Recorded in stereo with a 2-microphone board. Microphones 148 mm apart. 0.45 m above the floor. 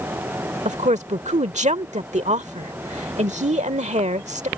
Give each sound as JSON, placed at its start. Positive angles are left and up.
{"t": 0.7, "sound": "a woman speaking", "side_deg": -50}